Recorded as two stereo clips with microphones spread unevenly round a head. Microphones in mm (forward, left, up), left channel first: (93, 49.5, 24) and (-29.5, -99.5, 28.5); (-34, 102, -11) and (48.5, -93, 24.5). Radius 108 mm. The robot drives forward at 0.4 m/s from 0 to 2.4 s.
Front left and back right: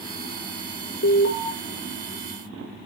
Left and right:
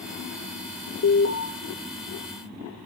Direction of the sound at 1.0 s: 80° left.